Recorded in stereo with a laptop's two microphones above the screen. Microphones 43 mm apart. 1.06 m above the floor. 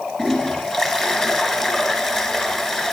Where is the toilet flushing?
15° left (ahead or behind), 2.5 m.